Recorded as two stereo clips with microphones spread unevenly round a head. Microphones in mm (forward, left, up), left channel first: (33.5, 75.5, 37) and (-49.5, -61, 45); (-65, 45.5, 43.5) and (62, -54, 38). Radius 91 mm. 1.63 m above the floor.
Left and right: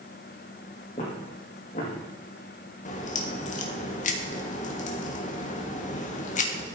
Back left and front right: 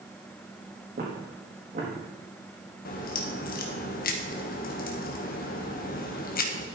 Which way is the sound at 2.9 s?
105° left.